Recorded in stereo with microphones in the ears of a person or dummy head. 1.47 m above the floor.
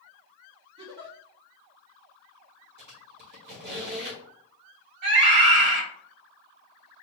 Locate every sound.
0.8 s a giggle: 35° right (ahead or behind), 1.3 m
2.8 s a squeak: 65° right (ahead or behind), 1.6 m
5.0 s a scream: 60° right (ahead or behind), 1.9 m